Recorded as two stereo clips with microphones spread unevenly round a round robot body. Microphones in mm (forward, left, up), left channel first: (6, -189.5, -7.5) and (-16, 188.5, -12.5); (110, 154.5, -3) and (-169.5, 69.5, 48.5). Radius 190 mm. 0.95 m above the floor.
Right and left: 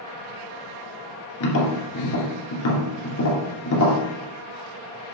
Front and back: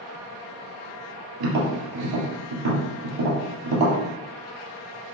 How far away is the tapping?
About 2.5 m.